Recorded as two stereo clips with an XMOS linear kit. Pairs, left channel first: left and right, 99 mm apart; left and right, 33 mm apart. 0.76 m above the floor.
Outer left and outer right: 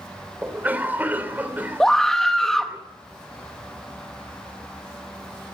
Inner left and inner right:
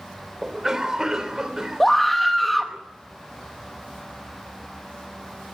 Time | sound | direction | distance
0.4 | a cough | 20° right (ahead or behind) | 3 m
1.8 | a scream | 5° left (ahead or behind) | 0.9 m